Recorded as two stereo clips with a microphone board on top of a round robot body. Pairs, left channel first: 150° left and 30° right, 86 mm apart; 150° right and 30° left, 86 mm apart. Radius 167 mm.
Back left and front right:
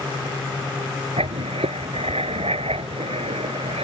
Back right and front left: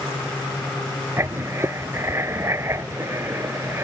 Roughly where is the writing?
Ahead right.